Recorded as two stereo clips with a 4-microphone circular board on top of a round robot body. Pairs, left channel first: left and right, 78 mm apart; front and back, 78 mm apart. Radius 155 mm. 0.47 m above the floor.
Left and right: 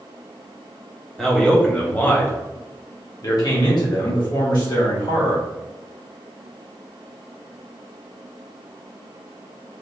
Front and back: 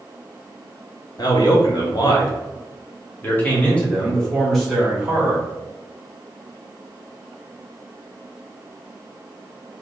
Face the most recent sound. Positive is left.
turn(degrees=100)